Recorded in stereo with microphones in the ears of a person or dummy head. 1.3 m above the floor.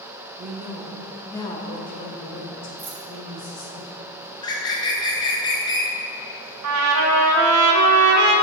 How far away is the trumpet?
About 1.1 m.